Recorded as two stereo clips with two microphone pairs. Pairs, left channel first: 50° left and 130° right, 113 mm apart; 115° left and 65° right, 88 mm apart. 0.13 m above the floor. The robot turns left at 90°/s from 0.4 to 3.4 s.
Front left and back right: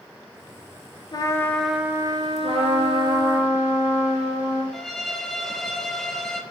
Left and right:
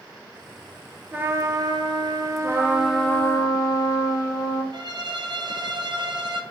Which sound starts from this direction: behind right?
A trumpet, at 2.4 s.